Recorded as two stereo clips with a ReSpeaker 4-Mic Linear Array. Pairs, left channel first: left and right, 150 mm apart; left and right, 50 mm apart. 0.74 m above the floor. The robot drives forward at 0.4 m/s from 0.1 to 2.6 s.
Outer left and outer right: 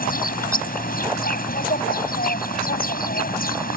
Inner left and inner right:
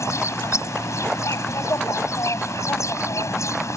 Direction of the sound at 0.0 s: 75° left (ahead or behind).